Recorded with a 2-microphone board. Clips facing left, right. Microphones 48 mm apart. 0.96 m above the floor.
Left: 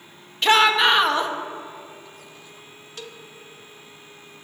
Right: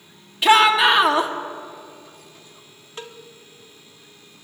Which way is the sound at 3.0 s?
25° right (ahead or behind).